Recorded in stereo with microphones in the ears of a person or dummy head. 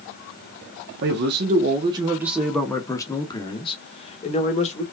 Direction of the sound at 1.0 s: 60° right (ahead or behind).